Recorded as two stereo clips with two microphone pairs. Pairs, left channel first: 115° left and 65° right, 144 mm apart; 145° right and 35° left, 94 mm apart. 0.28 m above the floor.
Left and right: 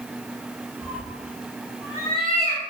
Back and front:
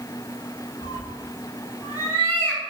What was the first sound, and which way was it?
A cat meowing, 135° right.